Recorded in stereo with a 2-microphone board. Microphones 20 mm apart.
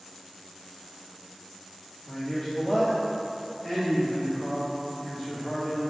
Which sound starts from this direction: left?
A man speaking, at 2.0 s.